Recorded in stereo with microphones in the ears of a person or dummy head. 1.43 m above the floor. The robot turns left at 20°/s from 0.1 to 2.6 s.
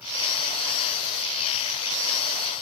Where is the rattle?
I don't hear a rattle.